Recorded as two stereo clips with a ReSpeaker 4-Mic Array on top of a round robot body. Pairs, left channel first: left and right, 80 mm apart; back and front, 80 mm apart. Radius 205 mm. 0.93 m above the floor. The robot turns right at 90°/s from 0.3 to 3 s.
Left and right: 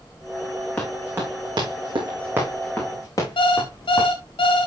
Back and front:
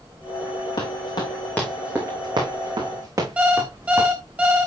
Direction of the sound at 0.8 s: 170° left.